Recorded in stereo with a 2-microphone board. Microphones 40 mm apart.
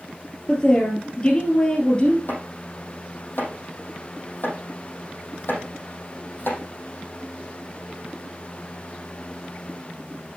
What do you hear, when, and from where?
0.5 s a woman speaking: 25° left (ahead or behind), 2.5 m
2.3 s chopping: 60° left (ahead or behind), 4.5 m